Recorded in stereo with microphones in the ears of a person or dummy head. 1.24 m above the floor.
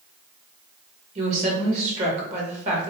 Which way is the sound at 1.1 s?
40° right (ahead or behind).